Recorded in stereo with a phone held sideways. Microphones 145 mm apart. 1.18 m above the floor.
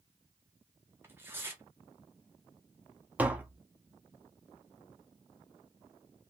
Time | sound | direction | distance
1.0 | tearing paper | 15° right (ahead or behind) | 1.2 m
3.2 | tapping | 10° right (ahead or behind) | 0.9 m